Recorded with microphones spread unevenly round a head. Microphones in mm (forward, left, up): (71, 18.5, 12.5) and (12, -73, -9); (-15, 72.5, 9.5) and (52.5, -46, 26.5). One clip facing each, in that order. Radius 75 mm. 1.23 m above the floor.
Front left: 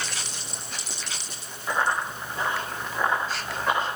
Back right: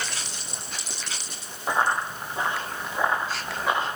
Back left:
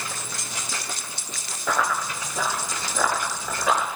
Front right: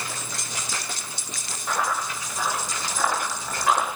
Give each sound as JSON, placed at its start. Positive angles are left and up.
{"t": 1.7, "sound": "running footsteps", "azimuth_deg": 160, "distance_m": 5.0}